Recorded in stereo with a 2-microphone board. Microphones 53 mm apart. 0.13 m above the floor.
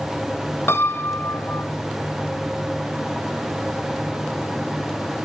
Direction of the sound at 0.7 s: 55° left (ahead or behind).